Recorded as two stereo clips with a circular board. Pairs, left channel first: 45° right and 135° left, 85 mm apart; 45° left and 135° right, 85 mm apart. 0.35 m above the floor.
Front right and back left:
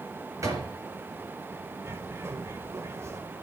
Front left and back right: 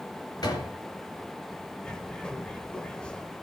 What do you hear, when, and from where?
0.4 s a door slam: 85° left, 4 m
1.8 s a bird: 115° left, 1.5 m